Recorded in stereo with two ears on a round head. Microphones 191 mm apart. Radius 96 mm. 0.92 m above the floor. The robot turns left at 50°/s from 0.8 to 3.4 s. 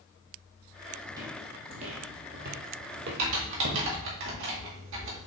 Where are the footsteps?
15° right (ahead or behind), 2 m; by 3.9 s 55° right (ahead or behind), 2.0 m.